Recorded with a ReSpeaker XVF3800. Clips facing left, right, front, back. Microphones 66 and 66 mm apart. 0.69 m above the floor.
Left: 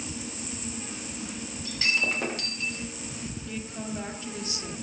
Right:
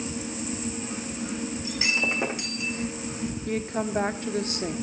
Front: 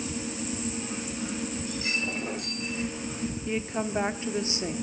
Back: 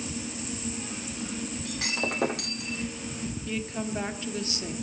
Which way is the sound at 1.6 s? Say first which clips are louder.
Even, even; 165° right.